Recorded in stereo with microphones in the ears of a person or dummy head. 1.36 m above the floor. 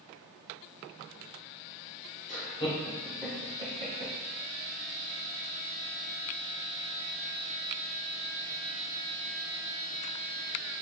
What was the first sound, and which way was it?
Laughter, 35° left (ahead or behind).